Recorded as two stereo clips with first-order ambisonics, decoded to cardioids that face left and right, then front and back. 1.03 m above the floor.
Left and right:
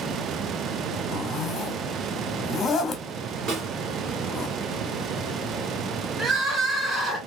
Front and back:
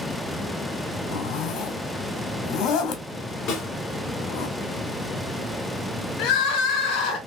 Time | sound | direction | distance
1.1 | a zipper | 20° left | 0.7 m
3.5 | a snare drum | 45° right | 2 m
6.2 | crying | 15° right | 2 m